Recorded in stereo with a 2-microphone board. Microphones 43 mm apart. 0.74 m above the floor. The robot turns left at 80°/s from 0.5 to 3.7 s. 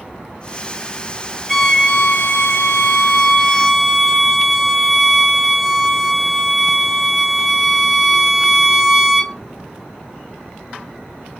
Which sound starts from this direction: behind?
A violin, at 1.5 s.